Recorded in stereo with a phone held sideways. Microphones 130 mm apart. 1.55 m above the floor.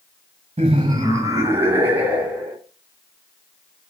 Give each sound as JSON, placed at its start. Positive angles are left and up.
{"t": 0.6, "sound": "laughter", "side_deg": -55, "distance_m": 0.7}